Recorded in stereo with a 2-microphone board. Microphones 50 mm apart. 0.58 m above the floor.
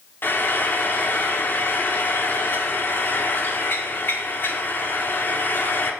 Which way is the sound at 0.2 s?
45° left (ahead or behind).